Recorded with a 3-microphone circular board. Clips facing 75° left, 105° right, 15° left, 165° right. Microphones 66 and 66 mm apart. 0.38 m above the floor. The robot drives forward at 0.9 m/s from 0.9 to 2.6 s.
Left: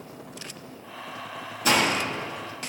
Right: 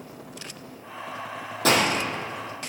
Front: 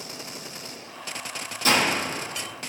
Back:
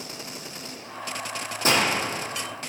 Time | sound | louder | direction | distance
1.6 | a gunshot | right 1 dB, even | 110° right | 3.5 m